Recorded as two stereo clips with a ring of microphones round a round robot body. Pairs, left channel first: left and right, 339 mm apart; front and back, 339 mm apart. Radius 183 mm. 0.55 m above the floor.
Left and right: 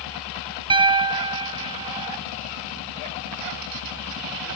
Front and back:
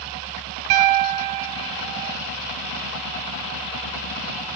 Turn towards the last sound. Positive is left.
turn(degrees=-165)